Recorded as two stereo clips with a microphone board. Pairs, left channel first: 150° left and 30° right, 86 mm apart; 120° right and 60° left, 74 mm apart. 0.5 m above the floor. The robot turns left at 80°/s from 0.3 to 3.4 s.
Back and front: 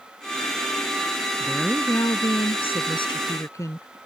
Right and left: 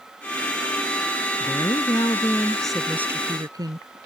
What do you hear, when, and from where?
1.4 s a woman speaking: 105° right; by 3.9 s 95° left